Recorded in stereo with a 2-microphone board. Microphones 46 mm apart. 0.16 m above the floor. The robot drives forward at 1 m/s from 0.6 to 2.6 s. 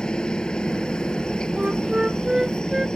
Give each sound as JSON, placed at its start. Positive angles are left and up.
{"t": 0.0, "sound": "a helicopter", "side_deg": 15}
{"t": 1.6, "sound": "a flute", "side_deg": -25}